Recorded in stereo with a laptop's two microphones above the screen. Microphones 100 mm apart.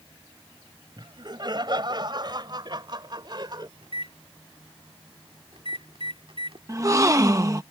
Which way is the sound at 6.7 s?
30° right (ahead or behind).